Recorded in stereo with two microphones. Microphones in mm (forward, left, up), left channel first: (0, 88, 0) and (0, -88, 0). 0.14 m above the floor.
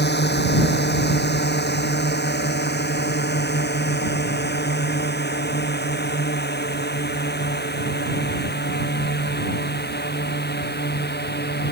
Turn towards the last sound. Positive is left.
turn(degrees=70)  # may be behind; listen again after turning